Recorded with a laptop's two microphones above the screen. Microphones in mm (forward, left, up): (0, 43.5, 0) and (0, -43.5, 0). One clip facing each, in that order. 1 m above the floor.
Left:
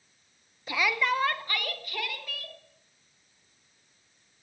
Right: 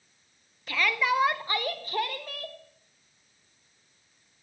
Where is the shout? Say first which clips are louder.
Right 1 dB; 20° left (ahead or behind), 0.7 m; by 2.6 s 40° right (ahead or behind), 1.8 m.